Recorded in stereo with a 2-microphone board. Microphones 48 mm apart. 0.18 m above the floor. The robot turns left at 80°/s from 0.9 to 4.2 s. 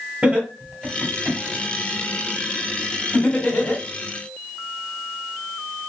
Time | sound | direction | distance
0.2 | laughter | 25° right (ahead or behind) | 2.0 m